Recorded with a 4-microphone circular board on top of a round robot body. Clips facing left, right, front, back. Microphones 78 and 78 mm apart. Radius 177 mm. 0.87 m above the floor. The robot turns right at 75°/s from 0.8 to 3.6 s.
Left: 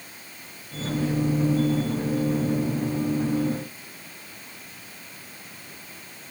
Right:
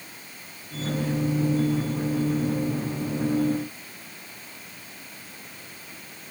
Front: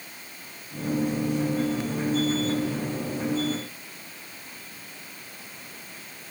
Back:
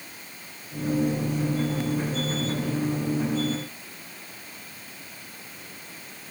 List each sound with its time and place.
Only background noise.